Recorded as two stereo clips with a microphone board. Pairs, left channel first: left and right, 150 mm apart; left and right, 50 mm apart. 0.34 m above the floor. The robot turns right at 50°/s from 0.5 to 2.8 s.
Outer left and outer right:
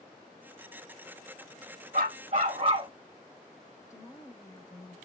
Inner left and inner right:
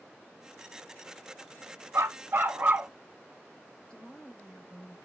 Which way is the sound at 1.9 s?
75° right.